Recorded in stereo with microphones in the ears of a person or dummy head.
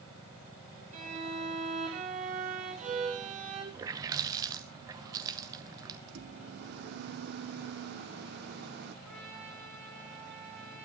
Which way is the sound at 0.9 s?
35° right (ahead or behind).